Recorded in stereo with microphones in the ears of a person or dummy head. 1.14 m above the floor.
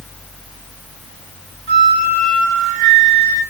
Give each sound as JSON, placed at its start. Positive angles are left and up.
{"t": 1.7, "sound": "a flute", "side_deg": -85, "distance_m": 4.5}